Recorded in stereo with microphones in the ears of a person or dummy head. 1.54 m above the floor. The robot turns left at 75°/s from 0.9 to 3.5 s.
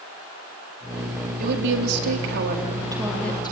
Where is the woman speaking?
50° right, 4 m; by 3.5 s 155° left, 4 m.